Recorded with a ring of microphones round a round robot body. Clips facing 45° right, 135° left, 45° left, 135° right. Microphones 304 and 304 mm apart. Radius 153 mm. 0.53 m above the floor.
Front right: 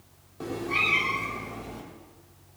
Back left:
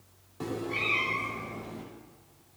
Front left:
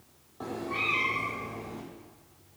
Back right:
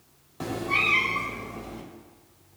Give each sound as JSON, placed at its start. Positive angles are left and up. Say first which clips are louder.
{"t": 0.4, "sound": "a cat meowing", "louder": "front right 1 dB, back right 4 dB", "azimuth_deg": -150, "distance_m": 0.6}